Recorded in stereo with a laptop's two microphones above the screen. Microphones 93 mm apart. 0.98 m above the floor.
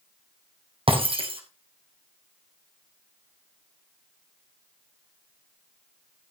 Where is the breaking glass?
65° right (ahead or behind), 4.5 m.